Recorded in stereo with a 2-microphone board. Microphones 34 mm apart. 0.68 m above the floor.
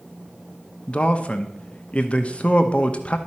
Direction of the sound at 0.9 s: 35° left (ahead or behind).